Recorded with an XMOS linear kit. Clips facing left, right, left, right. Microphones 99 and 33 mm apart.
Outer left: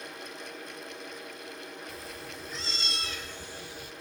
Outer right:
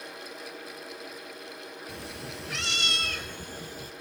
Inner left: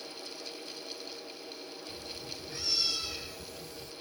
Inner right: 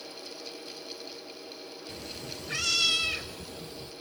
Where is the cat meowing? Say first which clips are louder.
Outer right 2 dB, inner right 4 dB; 70° right (ahead or behind), 1.3 m; by 3.9 s 40° right (ahead or behind), 2.0 m.